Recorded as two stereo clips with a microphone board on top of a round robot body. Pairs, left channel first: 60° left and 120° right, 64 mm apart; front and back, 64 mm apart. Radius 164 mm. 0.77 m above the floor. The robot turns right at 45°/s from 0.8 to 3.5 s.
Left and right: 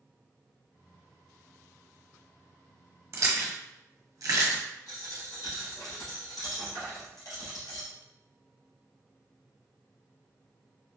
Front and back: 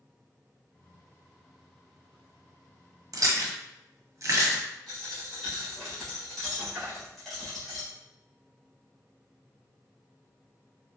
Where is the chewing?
160° right, 1.3 m; by 4.6 s 145° right, 1.3 m.